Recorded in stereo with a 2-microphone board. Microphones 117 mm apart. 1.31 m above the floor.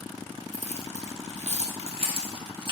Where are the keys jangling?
70° right (ahead or behind), 1.1 m; by 2.7 s 40° right (ahead or behind), 1.8 m.